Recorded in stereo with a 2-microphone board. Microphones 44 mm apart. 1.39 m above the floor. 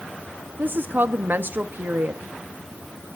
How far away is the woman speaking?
About 0.8 m.